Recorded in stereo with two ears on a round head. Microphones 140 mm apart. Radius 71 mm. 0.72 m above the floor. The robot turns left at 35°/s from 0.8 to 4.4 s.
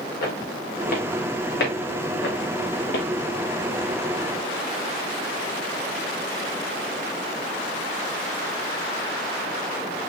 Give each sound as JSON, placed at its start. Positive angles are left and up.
{"t": 0.2, "sound": "footsteps", "side_deg": 65, "distance_m": 4.0}